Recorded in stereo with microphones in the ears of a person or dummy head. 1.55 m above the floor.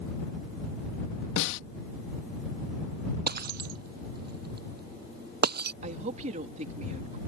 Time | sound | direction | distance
1.4 | a snare drum | 70° left (ahead or behind) | ?
3.3 | breaking glass | 60° right (ahead or behind) | ?
5.8 | a woman speaking | 35° right (ahead or behind) | ?